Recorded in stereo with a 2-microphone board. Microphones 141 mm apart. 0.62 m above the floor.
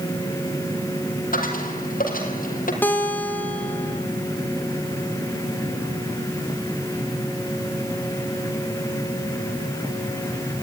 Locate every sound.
1.3 s a dropped coin: 80° left, 4 m
2.8 s a guitar: 15° left (ahead or behind), 3 m